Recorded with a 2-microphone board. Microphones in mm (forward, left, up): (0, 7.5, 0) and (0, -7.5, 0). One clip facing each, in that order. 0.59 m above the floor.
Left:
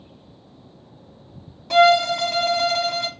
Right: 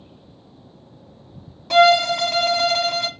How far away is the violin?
About 0.5 m.